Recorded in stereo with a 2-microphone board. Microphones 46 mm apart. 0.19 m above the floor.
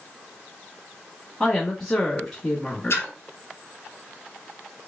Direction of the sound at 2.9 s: 60° left (ahead or behind).